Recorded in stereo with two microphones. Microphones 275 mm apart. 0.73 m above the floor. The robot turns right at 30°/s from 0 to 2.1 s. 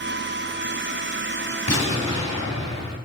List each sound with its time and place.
1.7 s an explosion: 65° left (ahead or behind), 3 m; by 3.0 s 70° left (ahead or behind), 3 m